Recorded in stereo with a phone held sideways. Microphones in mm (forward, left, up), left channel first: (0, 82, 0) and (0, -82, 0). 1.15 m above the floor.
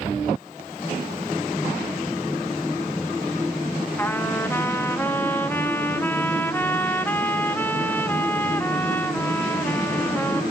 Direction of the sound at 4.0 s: 10° left (ahead or behind).